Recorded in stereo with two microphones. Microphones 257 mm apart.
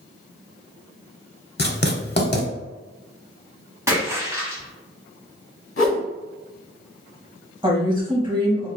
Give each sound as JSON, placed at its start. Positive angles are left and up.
{"t": 1.6, "sound": "writing", "side_deg": 40, "distance_m": 0.7}
{"t": 3.9, "sound": "a splash", "side_deg": -10, "distance_m": 1.7}
{"t": 5.8, "sound": "a whoosh", "side_deg": 55, "distance_m": 0.9}
{"t": 7.6, "sound": "a woman speaking", "side_deg": -20, "distance_m": 1.1}